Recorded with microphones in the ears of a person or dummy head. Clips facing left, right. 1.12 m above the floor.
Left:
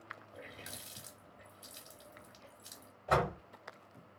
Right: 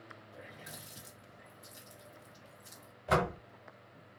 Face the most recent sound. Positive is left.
turn(degrees=-15)  # may be behind; listen again after turning